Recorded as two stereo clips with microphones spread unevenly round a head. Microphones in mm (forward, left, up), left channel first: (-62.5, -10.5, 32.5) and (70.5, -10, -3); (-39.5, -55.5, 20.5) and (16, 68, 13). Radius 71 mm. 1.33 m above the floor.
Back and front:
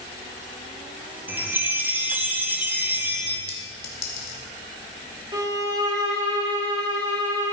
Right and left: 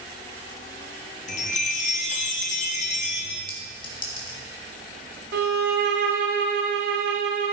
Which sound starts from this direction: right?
A chime, at 1.3 s.